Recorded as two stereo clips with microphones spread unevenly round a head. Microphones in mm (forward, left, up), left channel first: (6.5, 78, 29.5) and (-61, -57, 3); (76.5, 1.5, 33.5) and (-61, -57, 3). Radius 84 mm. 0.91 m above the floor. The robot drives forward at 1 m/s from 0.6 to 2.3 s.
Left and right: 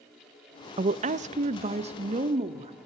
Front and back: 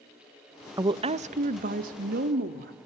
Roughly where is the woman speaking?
Right.